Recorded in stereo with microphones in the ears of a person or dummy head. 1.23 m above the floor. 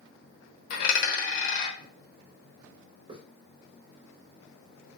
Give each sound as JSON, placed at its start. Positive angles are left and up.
{"t": 0.7, "sound": "a dropped coin", "side_deg": 50, "distance_m": 0.9}
{"t": 3.1, "sound": "a hiss", "side_deg": -35, "distance_m": 0.8}